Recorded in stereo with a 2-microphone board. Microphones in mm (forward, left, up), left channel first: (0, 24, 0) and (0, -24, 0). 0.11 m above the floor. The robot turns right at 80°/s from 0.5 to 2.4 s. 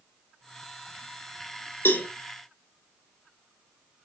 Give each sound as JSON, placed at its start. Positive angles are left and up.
{"t": 1.9, "sound": "a cowbell", "side_deg": 55, "distance_m": 3.0}